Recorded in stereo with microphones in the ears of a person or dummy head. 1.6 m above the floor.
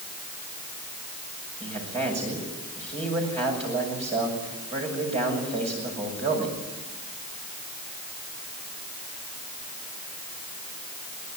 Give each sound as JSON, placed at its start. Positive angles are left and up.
{"t": 1.6, "sound": "a man speaking", "side_deg": -40, "distance_m": 7.0}